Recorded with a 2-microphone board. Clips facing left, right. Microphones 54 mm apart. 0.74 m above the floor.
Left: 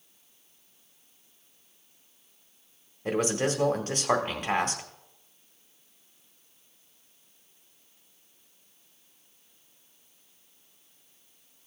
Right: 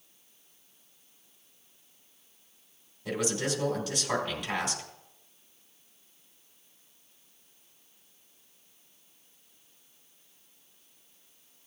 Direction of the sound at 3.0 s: 40° left (ahead or behind).